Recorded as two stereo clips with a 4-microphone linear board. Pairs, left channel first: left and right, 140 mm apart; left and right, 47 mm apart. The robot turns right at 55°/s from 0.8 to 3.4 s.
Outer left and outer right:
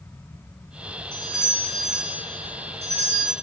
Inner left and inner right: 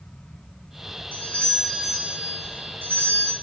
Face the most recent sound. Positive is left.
turn(degrees=-90)